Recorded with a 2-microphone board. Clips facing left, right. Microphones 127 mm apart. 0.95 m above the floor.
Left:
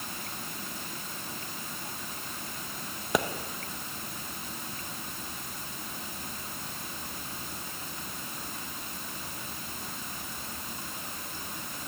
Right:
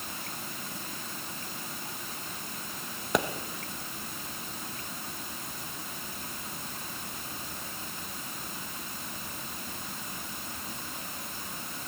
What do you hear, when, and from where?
3.1 s a pop: centre (ahead or behind), 0.7 m